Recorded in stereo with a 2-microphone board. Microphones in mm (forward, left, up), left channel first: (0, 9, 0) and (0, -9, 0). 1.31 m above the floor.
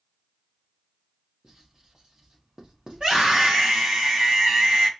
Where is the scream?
50° right (ahead or behind), 2 m.